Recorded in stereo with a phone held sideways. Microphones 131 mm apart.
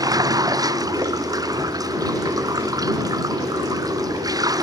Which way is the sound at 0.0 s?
30° right (ahead or behind).